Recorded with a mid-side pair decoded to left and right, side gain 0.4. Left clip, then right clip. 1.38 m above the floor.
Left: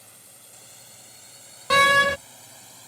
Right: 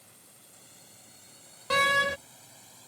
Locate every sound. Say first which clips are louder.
0.0 s a drone: left 6 dB; 55° left; by 2.9 s 50° left
1.7 s a door slam: left 7 dB; 50° left